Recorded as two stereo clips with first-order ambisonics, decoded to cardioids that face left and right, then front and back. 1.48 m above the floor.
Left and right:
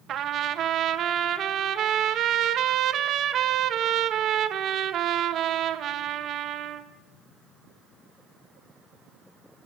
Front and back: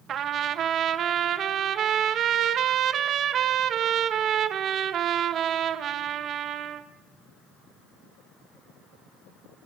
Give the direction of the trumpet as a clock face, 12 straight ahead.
4 o'clock.